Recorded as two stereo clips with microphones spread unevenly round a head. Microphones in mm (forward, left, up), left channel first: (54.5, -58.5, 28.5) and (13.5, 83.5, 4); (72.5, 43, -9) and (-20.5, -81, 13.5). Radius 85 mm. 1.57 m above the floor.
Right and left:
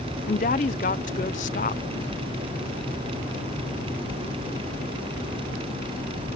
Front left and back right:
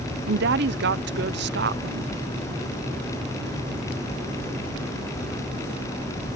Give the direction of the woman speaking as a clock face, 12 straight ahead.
4 o'clock.